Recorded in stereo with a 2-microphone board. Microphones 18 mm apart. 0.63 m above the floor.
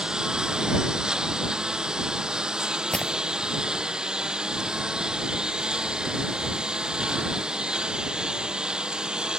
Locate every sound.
0.0 s a lawn mower: 45° right (ahead or behind); by 9.4 s 50° right (ahead or behind)
2.9 s breaking glass: 55° left (ahead or behind)